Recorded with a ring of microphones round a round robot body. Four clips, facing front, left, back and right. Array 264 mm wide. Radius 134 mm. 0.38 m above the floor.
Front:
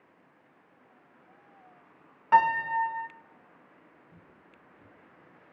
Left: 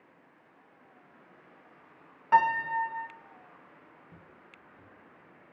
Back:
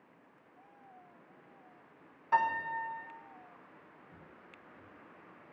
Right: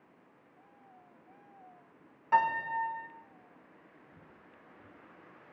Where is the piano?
25° left, 1.2 m.